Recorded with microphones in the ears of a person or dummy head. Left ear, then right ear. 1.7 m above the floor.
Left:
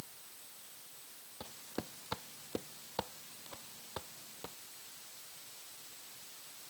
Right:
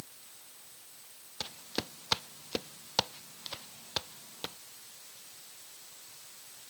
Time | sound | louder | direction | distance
1.4 | footsteps | right 8 dB | 70° right (ahead or behind) | ?